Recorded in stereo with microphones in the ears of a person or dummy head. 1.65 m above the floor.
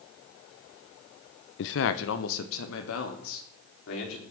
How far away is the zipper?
No zipper in this recording.